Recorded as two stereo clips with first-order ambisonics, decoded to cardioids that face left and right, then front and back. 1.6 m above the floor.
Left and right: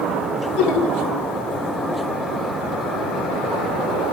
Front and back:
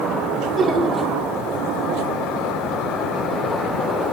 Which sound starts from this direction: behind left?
Laughter, at 0.3 s.